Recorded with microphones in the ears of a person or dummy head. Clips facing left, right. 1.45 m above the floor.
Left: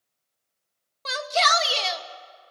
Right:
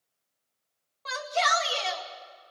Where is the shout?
55° left (ahead or behind), 2 m.